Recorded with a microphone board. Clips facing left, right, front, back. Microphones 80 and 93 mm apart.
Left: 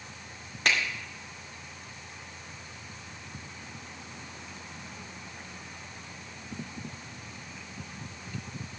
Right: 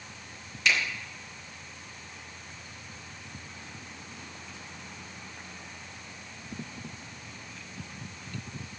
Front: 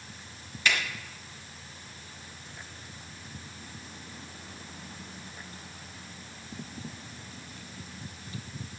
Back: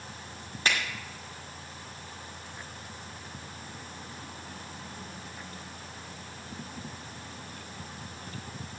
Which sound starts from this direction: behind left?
A finger snap, at 0.7 s.